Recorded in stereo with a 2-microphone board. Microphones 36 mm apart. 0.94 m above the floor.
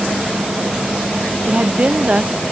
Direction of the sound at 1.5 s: 35° right (ahead or behind).